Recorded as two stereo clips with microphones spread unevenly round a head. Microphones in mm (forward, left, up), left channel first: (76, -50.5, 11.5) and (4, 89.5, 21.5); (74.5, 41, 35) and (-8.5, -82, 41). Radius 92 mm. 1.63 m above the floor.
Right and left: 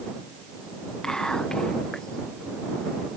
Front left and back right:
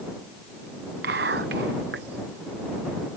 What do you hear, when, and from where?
1.0 s whispering: 150° right